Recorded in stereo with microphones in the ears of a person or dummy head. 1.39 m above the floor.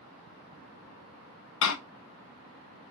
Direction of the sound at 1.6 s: 80° left.